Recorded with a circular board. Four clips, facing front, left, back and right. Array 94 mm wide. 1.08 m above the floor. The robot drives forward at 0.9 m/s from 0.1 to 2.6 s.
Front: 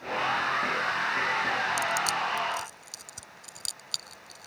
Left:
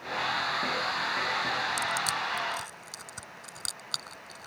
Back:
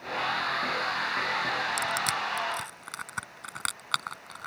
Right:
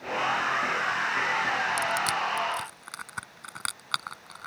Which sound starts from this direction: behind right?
Crushing, at 1.8 s.